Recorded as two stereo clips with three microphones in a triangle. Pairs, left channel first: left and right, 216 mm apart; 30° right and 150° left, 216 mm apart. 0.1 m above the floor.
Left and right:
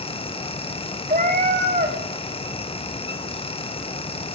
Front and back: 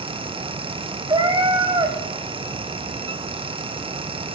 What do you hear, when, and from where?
1.1 s a cat meowing: 140° right, 2.0 m